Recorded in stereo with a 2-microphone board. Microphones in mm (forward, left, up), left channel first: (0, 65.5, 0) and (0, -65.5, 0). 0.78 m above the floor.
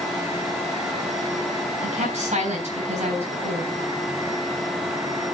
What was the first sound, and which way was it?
A woman speaking, 60° right (ahead or behind).